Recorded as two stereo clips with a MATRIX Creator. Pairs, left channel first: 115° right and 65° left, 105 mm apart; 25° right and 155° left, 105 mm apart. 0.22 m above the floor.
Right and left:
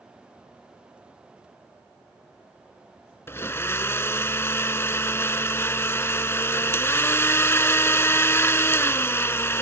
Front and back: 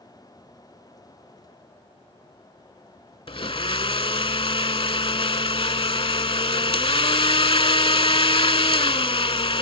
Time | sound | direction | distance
3.3 | a blender | 45° right | ?